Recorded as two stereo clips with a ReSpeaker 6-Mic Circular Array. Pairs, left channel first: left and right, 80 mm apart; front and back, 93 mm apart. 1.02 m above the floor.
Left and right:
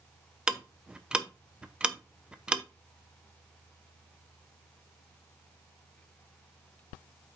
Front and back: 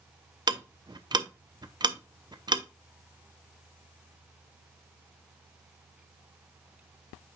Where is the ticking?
165° right, 0.6 m.